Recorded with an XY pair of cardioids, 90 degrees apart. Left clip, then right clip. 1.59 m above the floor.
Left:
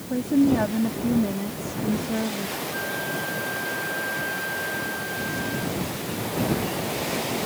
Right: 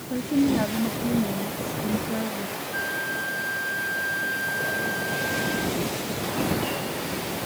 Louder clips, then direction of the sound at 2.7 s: Right 3 dB; 30° right.